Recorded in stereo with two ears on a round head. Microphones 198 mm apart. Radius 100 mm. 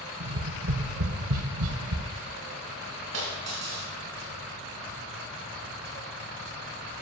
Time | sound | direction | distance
0.2 | tapping | 75° right (ahead or behind) | 1.2 m
3.1 | a dropped coin | 55° right (ahead or behind) | 4.5 m